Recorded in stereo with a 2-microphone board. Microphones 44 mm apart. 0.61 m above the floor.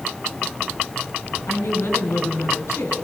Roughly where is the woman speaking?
Left.